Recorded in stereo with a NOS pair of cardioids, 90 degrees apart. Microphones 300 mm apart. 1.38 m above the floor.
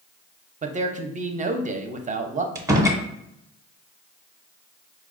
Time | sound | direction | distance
0.6 | a man speaking | 25° right | 0.5 m
2.5 | a door slam | 10° right | 0.6 m